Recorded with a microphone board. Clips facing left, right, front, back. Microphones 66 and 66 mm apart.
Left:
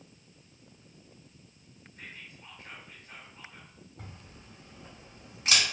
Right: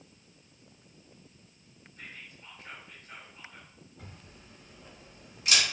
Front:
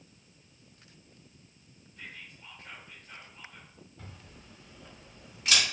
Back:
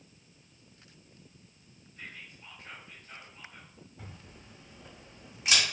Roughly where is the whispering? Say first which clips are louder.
Even, even; left.